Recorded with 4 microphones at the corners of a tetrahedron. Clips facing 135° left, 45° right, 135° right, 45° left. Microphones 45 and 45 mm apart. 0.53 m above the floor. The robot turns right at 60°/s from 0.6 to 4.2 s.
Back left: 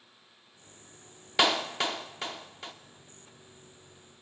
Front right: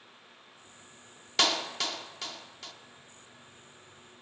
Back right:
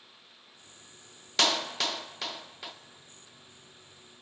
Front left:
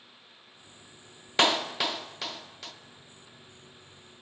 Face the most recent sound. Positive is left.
turn(degrees=-110)